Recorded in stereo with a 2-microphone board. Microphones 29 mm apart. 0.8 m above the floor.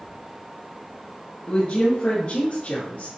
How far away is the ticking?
I don't hear ticking.